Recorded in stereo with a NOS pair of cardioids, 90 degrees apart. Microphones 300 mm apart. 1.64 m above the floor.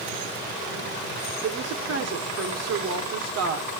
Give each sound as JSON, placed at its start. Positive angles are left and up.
{"t": 1.4, "sound": "a woman speaking", "azimuth_deg": -55, "distance_m": 1.4}